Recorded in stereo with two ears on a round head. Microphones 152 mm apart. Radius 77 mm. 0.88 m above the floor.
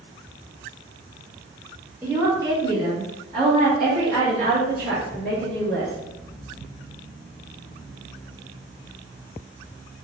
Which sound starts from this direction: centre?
A woman speaking, at 2.0 s.